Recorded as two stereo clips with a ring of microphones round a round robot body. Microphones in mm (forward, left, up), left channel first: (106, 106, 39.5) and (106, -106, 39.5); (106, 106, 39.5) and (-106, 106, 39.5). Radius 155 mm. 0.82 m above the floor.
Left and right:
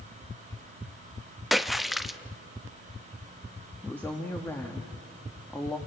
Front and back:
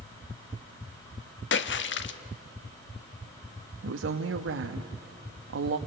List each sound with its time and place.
1.5 s a splash: straight ahead, 1.2 m
3.8 s a woman speaking: 175° left, 1.1 m